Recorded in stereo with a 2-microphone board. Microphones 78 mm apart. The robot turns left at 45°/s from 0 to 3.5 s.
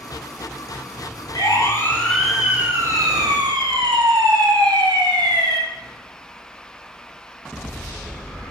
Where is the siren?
55° left (ahead or behind), 5 m; by 5.6 s 65° right (ahead or behind), 4.5 m.